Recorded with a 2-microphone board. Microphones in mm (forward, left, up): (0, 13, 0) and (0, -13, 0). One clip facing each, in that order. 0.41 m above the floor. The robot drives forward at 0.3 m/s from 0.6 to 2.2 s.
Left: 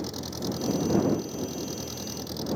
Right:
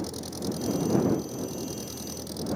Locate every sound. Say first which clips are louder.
0.0 s an engine running: even; 15° left (ahead or behind)